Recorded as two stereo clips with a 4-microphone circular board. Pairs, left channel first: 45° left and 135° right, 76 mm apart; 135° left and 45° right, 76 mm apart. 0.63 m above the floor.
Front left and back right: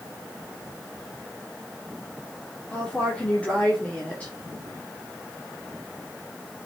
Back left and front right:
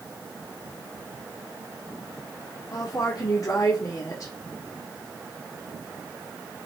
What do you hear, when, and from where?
2.7 s a woman speaking: 115° left, 1.8 m